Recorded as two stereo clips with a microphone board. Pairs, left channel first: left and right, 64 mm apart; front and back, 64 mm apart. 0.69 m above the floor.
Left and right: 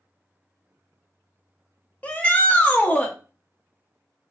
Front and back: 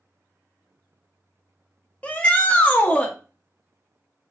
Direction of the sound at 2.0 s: 50° left.